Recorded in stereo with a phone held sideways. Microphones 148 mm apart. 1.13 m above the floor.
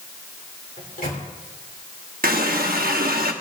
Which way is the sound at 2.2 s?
75° right (ahead or behind).